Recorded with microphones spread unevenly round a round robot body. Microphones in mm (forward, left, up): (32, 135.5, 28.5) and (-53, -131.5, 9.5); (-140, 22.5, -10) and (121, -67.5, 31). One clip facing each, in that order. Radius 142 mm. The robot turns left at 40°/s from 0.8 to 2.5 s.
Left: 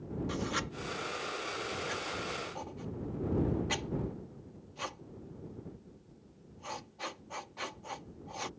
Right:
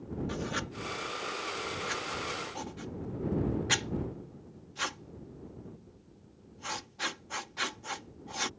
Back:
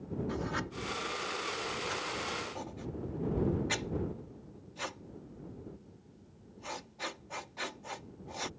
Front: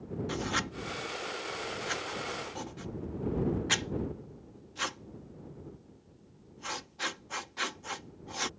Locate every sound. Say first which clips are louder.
0.3 s writing: even, front 1 dB; 10° right; by 8.5 s 75° right